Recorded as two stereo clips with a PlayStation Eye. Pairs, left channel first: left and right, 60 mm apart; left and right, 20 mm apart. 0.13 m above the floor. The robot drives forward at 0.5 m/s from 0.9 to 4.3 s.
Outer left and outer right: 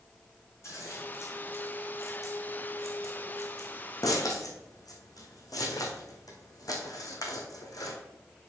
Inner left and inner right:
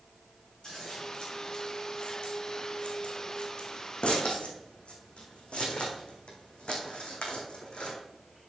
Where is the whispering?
I don't hear whispering.